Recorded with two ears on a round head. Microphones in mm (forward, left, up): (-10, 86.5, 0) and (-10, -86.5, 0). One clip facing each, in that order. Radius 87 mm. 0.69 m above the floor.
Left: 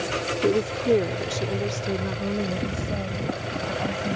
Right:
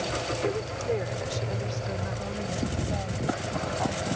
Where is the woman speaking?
55° left (ahead or behind); by 4.2 s 45° left (ahead or behind).